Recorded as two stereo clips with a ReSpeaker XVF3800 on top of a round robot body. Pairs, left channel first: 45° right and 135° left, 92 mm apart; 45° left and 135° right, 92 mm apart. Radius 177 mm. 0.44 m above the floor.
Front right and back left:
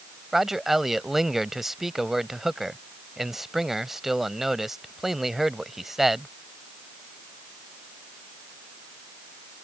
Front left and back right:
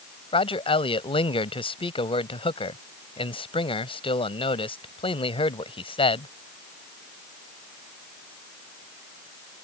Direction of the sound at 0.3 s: 50° left.